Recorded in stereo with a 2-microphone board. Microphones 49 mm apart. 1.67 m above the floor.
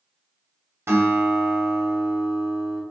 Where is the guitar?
70° right (ahead or behind), 1.0 m.